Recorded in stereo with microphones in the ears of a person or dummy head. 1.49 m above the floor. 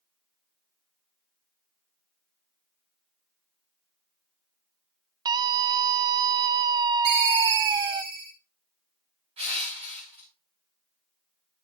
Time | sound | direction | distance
5.2 | a scream | 25° right (ahead or behind) | 0.7 m
7.0 | a ringtone | 65° right (ahead or behind) | 2.5 m
9.4 | crushing | 30° right (ahead or behind) | 3.5 m